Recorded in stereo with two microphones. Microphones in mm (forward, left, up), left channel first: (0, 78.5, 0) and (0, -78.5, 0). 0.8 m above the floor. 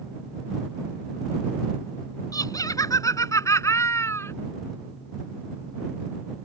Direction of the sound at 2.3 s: 25° left (ahead or behind).